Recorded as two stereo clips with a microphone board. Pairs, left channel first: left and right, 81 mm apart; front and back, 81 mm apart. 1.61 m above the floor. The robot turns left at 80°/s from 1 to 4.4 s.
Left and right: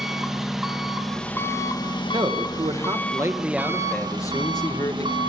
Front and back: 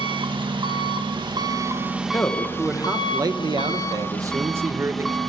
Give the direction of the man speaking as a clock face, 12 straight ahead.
2 o'clock.